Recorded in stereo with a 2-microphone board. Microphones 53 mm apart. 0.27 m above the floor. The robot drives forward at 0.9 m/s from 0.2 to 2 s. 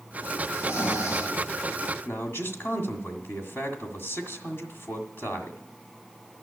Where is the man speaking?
50° left (ahead or behind), 1.9 m.